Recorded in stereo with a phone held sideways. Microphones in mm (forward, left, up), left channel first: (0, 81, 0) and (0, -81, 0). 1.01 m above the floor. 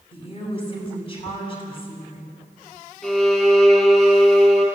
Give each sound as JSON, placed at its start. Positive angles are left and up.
{"t": 0.1, "sound": "a woman speaking", "side_deg": 35, "distance_m": 7.0}
{"t": 3.0, "sound": "a violin", "side_deg": 5, "distance_m": 4.0}